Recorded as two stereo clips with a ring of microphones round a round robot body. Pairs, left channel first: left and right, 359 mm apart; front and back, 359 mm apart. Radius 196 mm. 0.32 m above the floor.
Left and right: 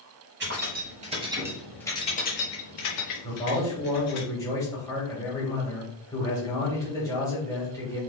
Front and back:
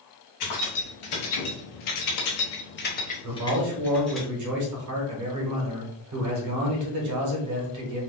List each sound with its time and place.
0.4 s keys jangling: 30° right, 1.6 m; by 4.2 s 90° left, 1.7 m
3.2 s a man speaking: 170° left, 1.3 m